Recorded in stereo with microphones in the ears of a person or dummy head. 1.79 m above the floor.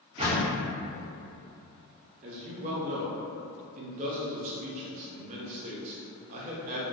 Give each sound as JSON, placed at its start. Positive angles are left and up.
{"t": 0.2, "sound": "a door slam", "side_deg": -25, "distance_m": 1.0}
{"t": 2.2, "sound": "a man speaking", "side_deg": -40, "distance_m": 0.6}